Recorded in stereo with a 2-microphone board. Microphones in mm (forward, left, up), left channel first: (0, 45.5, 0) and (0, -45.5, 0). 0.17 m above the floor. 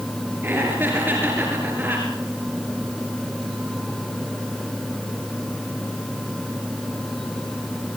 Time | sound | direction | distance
0.4 | laughter | 20° right (ahead or behind) | 3.5 m